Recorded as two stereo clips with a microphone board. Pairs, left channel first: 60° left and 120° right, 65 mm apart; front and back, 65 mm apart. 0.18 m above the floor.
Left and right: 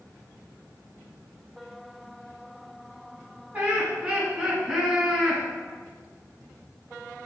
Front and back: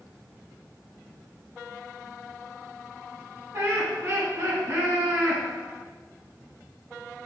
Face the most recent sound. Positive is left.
turn(degrees=155)